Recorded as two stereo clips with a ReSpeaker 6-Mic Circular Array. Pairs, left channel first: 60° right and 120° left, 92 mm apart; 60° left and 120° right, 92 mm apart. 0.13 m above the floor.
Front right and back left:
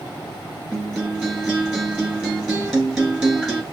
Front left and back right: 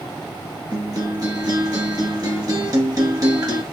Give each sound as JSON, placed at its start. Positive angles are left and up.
{"t": 0.7, "sound": "a guitar", "azimuth_deg": -150, "distance_m": 1.7}